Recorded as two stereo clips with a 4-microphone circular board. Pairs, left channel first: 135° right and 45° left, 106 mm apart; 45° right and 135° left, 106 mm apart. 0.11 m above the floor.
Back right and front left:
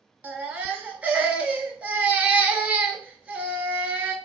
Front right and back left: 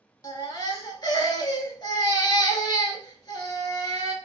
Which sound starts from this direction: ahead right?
A baby crying, at 0.2 s.